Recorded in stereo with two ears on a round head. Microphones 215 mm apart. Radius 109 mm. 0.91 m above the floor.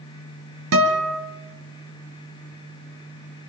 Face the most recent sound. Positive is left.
turn(degrees=-70)  # may be behind; listen again after turning